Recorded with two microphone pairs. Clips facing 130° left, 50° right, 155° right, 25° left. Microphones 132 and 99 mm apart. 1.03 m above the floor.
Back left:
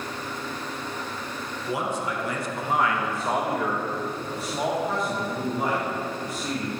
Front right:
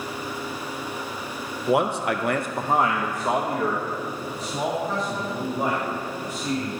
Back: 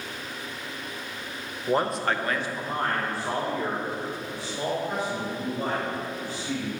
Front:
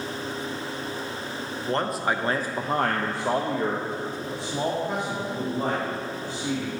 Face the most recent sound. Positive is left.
turn(degrees=55)